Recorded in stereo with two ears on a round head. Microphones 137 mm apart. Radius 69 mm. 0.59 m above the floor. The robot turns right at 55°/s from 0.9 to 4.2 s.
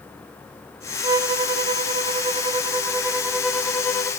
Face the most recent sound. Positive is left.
turn(degrees=40)